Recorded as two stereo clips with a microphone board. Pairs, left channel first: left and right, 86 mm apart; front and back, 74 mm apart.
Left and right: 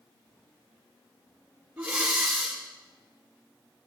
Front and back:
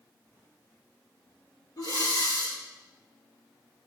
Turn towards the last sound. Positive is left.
turn(degrees=-15)